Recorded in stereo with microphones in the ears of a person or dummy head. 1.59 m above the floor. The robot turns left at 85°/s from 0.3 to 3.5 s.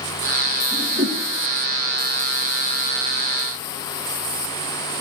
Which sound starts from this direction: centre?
A whoosh, at 0.7 s.